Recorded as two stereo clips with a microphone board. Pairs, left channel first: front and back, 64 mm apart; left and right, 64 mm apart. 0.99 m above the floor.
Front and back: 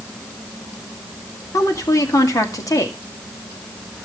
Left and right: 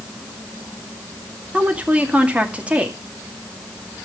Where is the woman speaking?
20° right, 2 m.